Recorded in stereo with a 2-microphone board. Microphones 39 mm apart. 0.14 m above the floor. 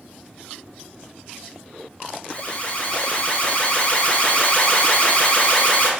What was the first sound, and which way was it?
An alarm, 35° left (ahead or behind).